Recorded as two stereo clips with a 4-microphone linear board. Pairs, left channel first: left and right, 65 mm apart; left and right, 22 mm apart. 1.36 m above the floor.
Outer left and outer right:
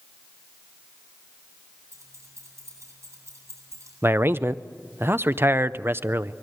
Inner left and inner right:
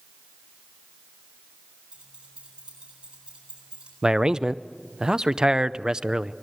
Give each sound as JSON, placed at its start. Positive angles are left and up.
{"t": 1.9, "sound": "keys jangling", "side_deg": -50, "distance_m": 8.5}
{"t": 4.0, "sound": "a man speaking", "side_deg": -40, "distance_m": 0.6}